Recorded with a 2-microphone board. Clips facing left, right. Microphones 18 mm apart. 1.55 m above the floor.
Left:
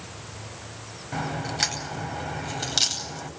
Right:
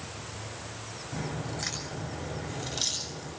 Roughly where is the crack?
Left.